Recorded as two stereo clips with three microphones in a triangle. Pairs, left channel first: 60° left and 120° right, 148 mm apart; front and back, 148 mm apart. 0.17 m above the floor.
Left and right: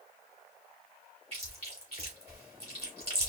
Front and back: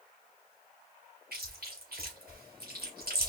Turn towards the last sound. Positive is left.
turn(degrees=-170)